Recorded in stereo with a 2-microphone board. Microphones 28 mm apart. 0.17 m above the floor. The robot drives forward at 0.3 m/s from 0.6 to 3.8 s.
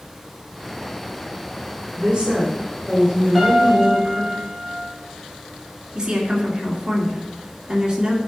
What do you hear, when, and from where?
2.0 s a woman speaking: 35° right (ahead or behind), 3 m; by 4.3 s 30° right (ahead or behind), 3 m
3.4 s a piano: 5° right (ahead or behind), 3 m
6.0 s a woman speaking: 35° right (ahead or behind), 2 m